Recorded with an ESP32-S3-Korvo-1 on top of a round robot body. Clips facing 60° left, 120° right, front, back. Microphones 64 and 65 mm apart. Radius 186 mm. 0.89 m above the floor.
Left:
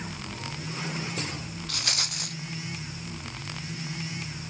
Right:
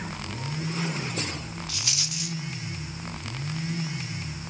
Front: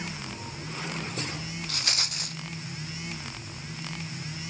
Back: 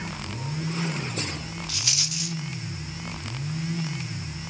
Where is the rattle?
35° left, 0.8 m.